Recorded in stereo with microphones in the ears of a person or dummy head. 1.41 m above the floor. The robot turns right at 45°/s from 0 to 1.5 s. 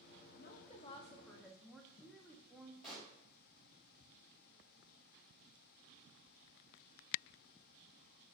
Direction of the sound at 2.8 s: 5° left (ahead or behind).